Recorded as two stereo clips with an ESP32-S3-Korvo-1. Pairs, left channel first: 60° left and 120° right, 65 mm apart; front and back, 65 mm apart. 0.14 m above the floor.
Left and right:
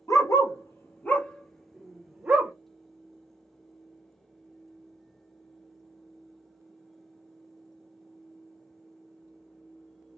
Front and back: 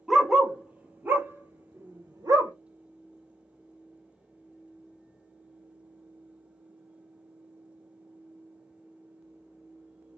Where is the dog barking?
95° left, 1.2 m; by 2.5 s 175° left, 1.1 m.